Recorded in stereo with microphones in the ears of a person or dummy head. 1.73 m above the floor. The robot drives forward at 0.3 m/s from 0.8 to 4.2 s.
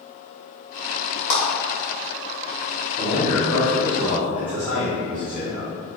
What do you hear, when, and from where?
1.3 s a clap: 20° left (ahead or behind), 1.4 m
3.0 s a man speaking: 10° left (ahead or behind), 1.1 m